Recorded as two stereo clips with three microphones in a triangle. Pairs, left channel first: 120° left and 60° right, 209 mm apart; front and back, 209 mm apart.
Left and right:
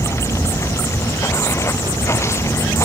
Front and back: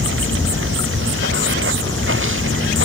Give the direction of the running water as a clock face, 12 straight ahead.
5 o'clock.